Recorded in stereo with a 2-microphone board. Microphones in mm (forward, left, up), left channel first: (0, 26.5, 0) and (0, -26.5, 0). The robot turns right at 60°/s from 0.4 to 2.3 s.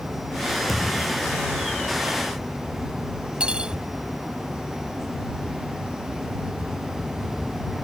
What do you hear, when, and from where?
0.7 s a thud: 5° right; by 1.4 s 40° left
3.4 s cutlery clinking: 20° right (ahead or behind)